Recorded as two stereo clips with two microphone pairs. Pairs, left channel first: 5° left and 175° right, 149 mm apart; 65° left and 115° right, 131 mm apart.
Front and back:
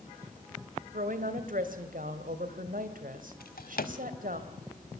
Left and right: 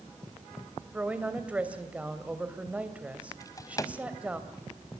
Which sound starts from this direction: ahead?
A drawer, at 3.4 s.